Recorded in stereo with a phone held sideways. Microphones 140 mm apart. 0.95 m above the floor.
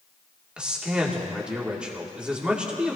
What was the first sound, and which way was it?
A man speaking, 10° right (ahead or behind).